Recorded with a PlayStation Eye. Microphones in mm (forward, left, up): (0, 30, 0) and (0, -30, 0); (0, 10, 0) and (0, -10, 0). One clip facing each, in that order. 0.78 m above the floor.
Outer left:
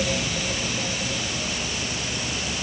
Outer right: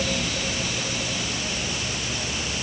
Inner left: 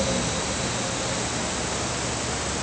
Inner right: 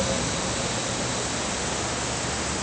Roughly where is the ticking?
I don't hear ticking.